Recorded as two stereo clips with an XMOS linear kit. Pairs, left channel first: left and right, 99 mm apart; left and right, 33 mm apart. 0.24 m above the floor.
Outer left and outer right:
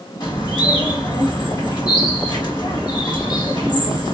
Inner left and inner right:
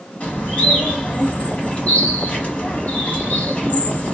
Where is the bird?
45° left (ahead or behind), 1.1 m.